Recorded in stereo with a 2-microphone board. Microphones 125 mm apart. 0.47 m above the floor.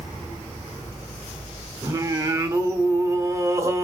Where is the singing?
25° right (ahead or behind), 0.7 m.